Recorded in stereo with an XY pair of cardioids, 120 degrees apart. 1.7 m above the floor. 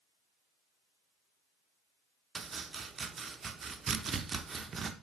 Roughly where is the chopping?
Ahead right.